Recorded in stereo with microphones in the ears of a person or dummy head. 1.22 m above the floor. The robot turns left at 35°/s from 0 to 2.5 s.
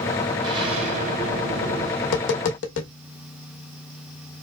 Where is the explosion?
25° right, 1.5 m; by 1.9 s 75° right, 1.5 m.